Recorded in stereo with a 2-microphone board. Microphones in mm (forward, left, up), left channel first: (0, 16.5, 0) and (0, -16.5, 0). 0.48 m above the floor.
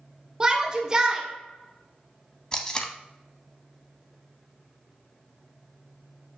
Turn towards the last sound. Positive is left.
turn(degrees=20)  # may be behind; listen again after turning